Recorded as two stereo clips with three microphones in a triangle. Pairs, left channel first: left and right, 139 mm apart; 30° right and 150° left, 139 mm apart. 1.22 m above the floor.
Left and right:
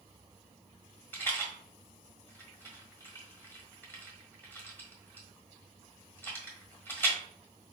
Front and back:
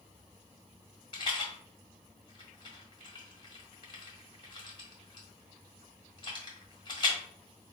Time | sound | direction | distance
1.1 | a rattle | 15° left | 1.5 m